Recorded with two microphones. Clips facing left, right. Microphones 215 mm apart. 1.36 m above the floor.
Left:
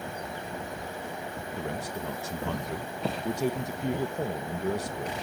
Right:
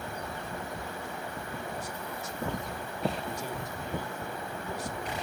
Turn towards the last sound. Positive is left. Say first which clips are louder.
# left 4 dB
turn(degrees=70)  # may be behind; listen again after turning